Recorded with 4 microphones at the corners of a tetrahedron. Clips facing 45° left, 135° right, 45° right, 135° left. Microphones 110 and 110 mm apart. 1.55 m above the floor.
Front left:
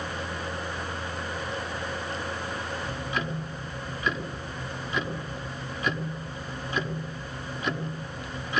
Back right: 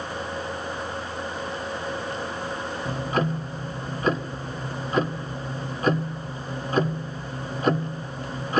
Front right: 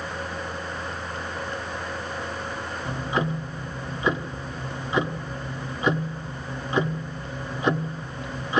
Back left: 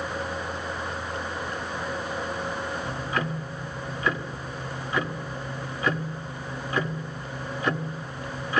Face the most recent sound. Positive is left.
turn(degrees=-110)